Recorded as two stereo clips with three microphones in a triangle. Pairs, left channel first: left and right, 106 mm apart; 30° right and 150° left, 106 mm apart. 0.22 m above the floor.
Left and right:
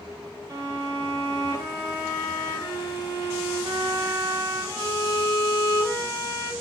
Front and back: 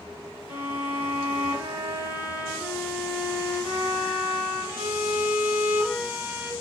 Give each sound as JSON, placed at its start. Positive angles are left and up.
{"t": 0.5, "sound": "a violin", "azimuth_deg": -145, "distance_m": 3.0}